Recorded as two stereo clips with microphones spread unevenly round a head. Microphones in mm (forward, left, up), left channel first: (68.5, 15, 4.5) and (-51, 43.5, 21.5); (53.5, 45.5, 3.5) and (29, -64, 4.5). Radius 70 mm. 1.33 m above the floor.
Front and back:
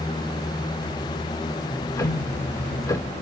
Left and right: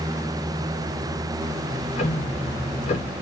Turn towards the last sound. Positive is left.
turn(degrees=50)